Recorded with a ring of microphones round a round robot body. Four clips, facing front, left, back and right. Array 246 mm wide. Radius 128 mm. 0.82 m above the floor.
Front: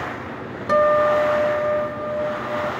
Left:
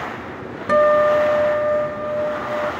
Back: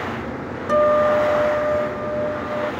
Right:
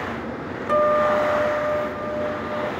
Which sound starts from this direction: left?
A guitar, at 0.7 s.